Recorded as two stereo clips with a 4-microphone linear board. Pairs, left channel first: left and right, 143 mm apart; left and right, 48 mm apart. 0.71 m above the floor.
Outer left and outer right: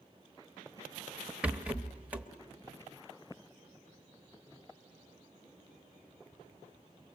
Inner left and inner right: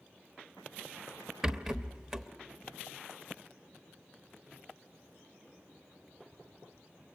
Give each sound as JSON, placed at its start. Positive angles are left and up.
{"t": 1.4, "sound": "a rattle", "side_deg": -10, "distance_m": 1.1}